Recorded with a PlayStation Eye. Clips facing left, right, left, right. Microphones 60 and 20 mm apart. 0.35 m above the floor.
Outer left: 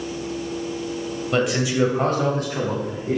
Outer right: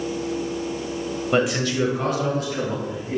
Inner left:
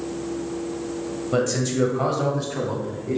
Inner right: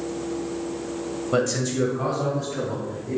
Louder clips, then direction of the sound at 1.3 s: Even, inner left 1 dB; 10° right (ahead or behind).